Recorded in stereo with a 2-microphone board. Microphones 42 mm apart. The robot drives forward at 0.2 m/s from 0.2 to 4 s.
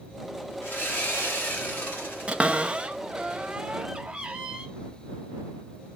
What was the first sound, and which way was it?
Sawing, 75° left (ahead or behind).